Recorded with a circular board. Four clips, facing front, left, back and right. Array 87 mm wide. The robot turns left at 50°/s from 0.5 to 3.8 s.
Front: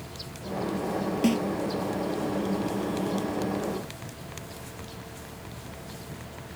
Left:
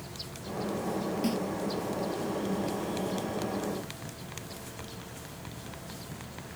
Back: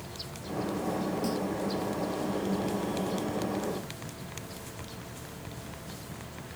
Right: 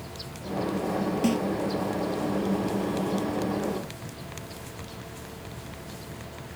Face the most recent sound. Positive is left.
turn(degrees=-150)